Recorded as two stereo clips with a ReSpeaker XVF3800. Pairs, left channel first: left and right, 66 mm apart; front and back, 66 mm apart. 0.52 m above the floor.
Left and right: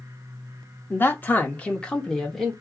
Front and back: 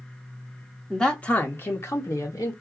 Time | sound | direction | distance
0.9 | a man speaking | 75° left | 0.8 m